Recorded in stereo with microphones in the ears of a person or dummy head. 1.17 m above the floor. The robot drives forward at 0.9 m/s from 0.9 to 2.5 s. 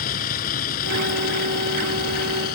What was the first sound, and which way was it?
A vehicle, 50° left (ahead or behind).